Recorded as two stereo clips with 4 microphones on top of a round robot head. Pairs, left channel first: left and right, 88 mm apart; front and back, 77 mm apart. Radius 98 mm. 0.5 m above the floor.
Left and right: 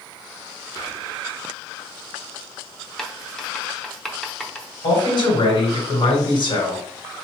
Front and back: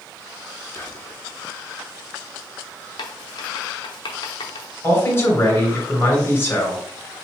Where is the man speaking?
60° left, 2.5 m.